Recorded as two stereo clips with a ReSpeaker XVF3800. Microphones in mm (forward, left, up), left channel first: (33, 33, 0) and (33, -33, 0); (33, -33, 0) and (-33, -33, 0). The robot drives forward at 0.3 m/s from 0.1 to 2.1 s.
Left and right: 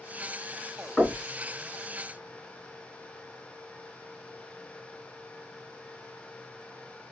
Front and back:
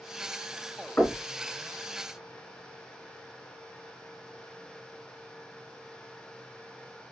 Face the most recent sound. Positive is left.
turn(degrees=40)